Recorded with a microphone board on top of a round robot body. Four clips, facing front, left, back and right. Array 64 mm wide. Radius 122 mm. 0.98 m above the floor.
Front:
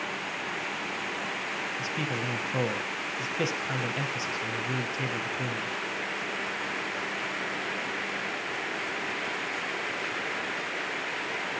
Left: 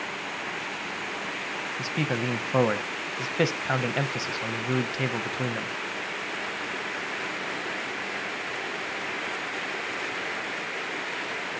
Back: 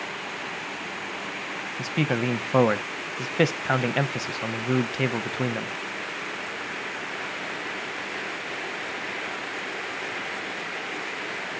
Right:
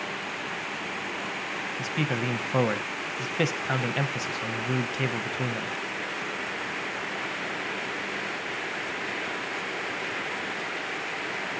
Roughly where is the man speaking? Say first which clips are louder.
Left 1 dB, back 10 dB; behind.